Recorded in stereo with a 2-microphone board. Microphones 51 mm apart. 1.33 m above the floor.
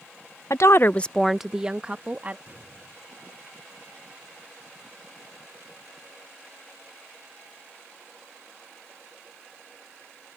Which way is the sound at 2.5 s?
40° right (ahead or behind).